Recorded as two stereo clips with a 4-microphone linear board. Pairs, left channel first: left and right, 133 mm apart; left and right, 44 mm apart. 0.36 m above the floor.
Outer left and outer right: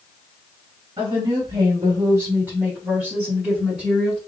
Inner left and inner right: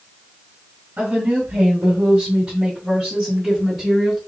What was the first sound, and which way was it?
A woman speaking, 40° right (ahead or behind).